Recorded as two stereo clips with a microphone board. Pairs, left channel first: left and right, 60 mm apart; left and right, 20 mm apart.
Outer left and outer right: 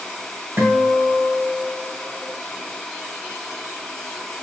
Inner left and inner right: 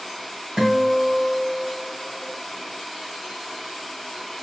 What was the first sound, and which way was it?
A guitar, 45° right (ahead or behind).